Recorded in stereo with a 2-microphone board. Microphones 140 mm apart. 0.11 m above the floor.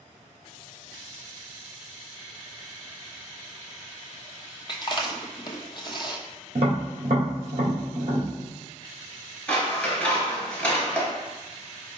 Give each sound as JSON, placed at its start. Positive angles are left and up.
{"t": 4.7, "sound": "chewing", "side_deg": 35, "distance_m": 0.8}
{"t": 6.5, "sound": "tapping", "side_deg": -50, "distance_m": 2.5}
{"t": 9.5, "sound": "scissors", "side_deg": 5, "distance_m": 1.9}